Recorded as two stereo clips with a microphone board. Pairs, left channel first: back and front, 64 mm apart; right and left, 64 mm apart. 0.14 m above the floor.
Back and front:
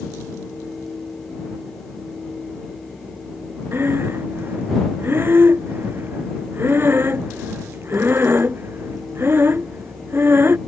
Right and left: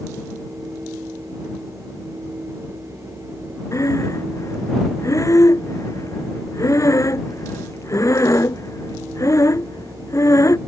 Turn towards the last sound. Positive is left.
turn(degrees=-55)